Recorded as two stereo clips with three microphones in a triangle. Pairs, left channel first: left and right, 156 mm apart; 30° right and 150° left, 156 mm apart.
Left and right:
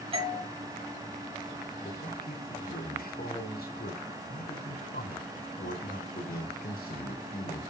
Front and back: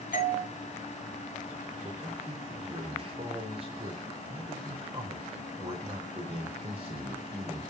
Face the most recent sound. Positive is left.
turn(degrees=100)